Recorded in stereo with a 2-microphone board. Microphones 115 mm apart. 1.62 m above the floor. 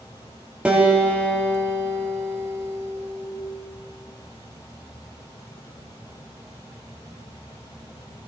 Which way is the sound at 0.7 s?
10° right (ahead or behind).